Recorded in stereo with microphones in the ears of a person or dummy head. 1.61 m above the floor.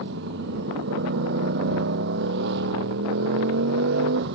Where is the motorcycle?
65° right (ahead or behind).